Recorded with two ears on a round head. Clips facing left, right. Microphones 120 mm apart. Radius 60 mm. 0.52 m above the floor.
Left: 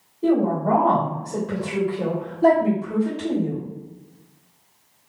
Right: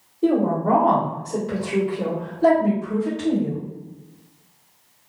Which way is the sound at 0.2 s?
35° right (ahead or behind).